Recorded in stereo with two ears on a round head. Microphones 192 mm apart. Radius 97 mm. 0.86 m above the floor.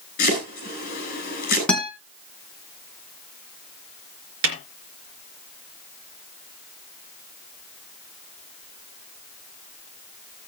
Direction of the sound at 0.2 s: 40° left (ahead or behind).